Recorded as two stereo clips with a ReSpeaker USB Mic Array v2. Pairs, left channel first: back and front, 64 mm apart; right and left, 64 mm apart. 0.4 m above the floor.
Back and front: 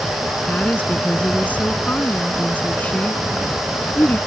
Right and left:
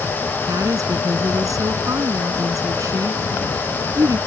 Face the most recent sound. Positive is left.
turn(degrees=115)